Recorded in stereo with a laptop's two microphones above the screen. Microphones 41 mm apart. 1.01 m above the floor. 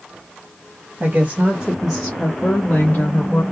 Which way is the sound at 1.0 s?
45° right (ahead or behind).